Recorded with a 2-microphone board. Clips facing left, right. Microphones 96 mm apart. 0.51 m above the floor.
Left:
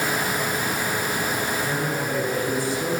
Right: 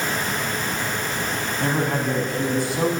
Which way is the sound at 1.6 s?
65° right (ahead or behind).